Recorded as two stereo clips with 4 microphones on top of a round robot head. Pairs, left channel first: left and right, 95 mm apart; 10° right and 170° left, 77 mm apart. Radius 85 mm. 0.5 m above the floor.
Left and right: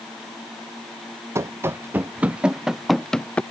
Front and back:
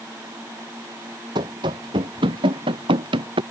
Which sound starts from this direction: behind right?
Running footsteps, at 1.4 s.